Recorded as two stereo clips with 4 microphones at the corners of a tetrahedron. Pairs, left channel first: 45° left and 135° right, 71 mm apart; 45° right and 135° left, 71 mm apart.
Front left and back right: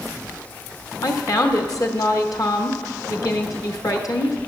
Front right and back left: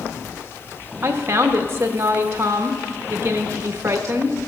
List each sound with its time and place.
1.0 s a woman speaking: 80° left, 1.0 m